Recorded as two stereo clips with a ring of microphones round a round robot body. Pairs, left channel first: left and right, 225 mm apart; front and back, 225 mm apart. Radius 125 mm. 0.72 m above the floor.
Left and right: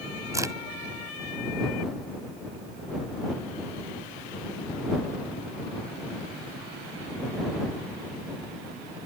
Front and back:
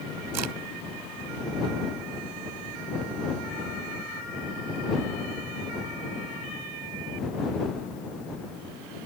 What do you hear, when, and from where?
0.3 s a crack: 165° right